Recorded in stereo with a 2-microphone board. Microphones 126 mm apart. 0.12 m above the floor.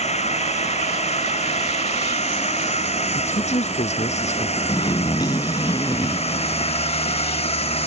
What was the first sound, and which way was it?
A drone, 60° left (ahead or behind).